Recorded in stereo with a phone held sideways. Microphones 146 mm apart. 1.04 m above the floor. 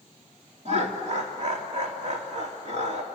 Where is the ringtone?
I don't hear a ringtone.